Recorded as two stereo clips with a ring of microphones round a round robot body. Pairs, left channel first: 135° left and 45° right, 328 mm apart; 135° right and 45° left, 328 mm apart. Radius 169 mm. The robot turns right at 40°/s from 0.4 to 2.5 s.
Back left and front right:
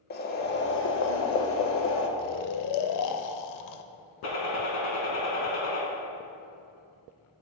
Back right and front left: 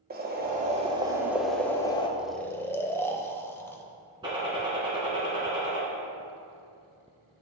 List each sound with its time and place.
0.1 s boiling: 90° left, 0.9 m; by 2.1 s 160° left, 0.9 m
2.2 s snoring: 130° left, 0.6 m; by 3.8 s 145° left, 0.6 m
4.2 s a gunshot: 120° left, 2 m